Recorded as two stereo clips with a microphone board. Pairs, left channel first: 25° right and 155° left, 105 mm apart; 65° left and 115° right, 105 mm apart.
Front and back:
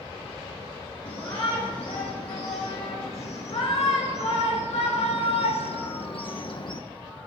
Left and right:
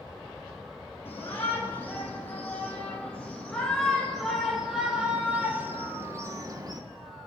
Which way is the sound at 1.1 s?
Straight ahead.